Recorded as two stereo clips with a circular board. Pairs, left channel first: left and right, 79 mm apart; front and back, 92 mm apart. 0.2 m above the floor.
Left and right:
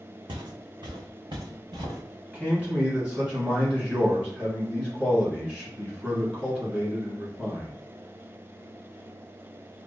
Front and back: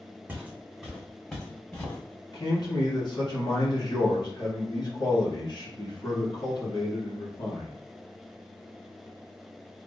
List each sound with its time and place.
0.3 s footsteps: 110° right, 1.0 m; by 2.0 s 65° right, 1.6 m
2.3 s a man speaking: 20° right, 1.9 m